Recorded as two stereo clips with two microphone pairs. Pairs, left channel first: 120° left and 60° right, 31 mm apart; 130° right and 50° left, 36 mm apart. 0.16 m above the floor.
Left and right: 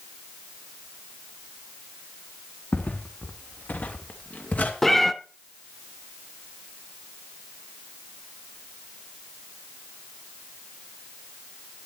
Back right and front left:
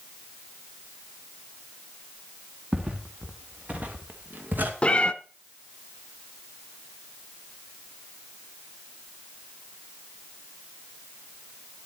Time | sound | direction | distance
2.7 | footsteps | 110° left | 3 m
4.8 | a cat meowing | 175° right | 0.7 m